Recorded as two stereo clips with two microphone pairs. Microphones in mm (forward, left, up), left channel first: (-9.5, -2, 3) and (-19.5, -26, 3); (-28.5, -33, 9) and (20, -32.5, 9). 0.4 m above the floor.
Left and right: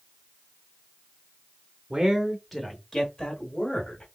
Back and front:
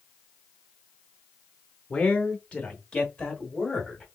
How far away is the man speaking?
About 0.8 m.